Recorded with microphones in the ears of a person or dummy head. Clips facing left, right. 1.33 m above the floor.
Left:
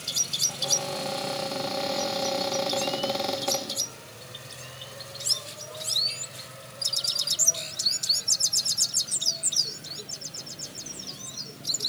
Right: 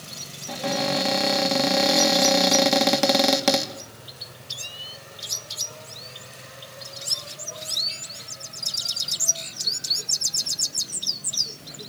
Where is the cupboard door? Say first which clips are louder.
Right 8 dB; 85° right, 2.5 m.